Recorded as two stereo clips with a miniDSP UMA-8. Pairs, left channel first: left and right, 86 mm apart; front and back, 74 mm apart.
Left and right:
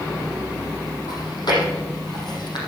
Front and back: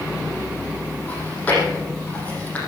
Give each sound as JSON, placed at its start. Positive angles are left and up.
{"t": 1.1, "sound": "chewing", "azimuth_deg": 65, "distance_m": 6.0}